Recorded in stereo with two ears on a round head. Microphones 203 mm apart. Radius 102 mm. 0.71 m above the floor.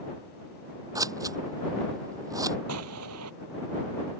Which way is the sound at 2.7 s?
85° right.